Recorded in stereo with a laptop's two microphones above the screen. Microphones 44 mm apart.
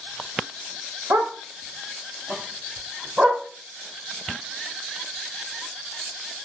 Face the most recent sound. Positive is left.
turn(degrees=-35)  # may be behind; listen again after turning